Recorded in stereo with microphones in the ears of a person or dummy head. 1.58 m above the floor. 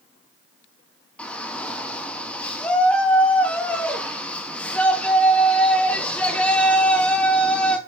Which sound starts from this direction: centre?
A shout, at 1.2 s.